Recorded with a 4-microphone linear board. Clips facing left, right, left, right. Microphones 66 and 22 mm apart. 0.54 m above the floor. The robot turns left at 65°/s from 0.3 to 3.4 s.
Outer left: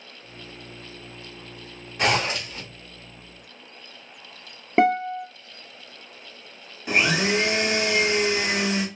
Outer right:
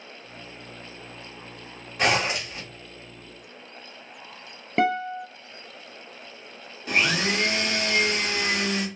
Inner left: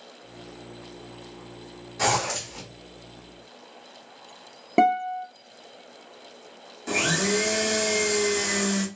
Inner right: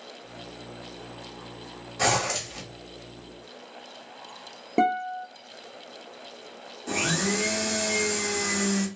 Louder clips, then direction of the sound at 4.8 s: Outer left 4 dB, inner left 3 dB; 25° left (ahead or behind).